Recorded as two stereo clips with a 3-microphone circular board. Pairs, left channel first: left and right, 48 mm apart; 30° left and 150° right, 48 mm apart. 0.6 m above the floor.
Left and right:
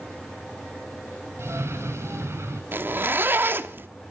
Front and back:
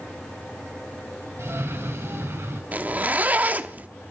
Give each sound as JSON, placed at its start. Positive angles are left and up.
{"t": 1.4, "sound": "a cough", "azimuth_deg": -120, "distance_m": 5.0}
{"t": 2.7, "sound": "a zipper", "azimuth_deg": -105, "distance_m": 0.8}